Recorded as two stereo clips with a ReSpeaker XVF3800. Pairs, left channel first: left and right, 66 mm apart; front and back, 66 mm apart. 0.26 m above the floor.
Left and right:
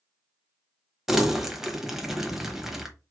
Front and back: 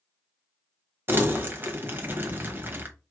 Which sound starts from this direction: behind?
Crumpling, at 1.1 s.